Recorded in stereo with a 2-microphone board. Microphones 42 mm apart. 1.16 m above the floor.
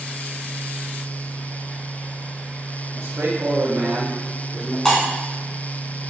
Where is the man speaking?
65° right (ahead or behind), 1.6 m; by 4.8 s 55° right (ahead or behind), 2.5 m.